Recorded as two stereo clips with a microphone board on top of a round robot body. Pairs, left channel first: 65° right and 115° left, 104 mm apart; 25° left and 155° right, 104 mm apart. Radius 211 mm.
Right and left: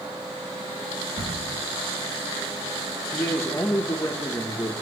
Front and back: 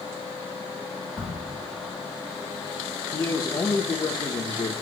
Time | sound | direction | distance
1.2 | a crack | 100° left | 8 m
3.1 | a man speaking | 15° right | 1.7 m